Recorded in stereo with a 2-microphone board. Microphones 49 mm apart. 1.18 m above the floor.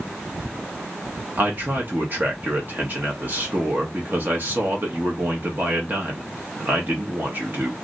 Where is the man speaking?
45° right (ahead or behind), 0.9 m.